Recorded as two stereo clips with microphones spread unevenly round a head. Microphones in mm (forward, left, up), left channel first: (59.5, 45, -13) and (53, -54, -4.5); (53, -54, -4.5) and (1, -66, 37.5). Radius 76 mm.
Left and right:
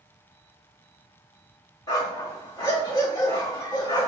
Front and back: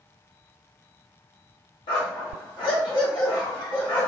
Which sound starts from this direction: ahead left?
A dog barking, at 1.9 s.